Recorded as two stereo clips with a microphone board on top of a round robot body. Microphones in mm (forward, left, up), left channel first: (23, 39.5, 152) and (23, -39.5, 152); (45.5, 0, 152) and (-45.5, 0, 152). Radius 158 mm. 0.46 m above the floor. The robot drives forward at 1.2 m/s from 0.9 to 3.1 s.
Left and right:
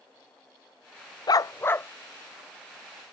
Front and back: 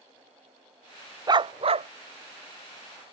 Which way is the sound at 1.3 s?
130° left.